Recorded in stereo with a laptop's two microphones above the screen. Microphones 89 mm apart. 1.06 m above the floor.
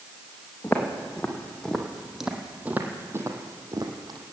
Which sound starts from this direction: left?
Footsteps, at 0.6 s.